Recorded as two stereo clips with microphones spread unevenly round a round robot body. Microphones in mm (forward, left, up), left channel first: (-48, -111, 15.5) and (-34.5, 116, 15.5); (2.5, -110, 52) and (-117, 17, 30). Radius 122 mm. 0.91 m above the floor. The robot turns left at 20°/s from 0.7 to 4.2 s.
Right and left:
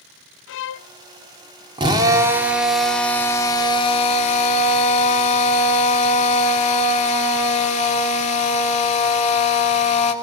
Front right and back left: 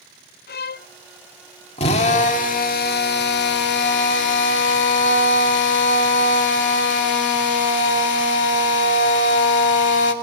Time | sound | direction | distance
0.5 | a violin | 70° right | 0.6 m
1.8 | a drill | 15° left | 3 m